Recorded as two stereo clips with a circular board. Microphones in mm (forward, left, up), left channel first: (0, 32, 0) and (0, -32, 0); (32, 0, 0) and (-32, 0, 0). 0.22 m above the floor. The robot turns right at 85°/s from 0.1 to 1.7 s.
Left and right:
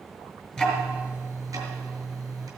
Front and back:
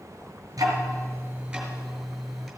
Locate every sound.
0.6 s ticking: 175° left, 2.5 m; by 2.5 s 90° right, 2.5 m